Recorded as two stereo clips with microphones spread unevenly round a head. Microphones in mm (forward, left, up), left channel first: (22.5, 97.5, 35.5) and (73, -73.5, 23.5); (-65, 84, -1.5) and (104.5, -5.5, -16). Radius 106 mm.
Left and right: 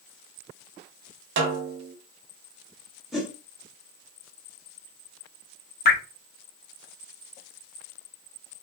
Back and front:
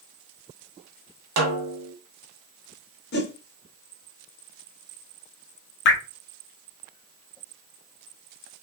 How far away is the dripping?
About 0.8 m.